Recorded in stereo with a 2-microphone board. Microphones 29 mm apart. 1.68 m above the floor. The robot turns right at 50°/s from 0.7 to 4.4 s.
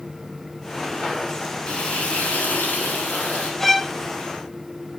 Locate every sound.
1.7 s frying: 35° left, 6.5 m; by 3.5 s 125° left, 6.5 m
3.6 s a violin: 10° left (ahead or behind), 1.0 m; by 3.9 s centre (ahead or behind), 1.0 m